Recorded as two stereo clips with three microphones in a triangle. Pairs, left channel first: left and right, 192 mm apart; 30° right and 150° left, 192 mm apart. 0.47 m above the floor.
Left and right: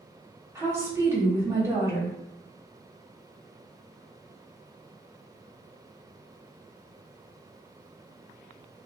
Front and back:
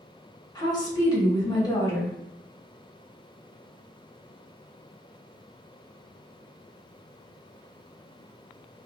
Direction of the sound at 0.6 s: 40° right.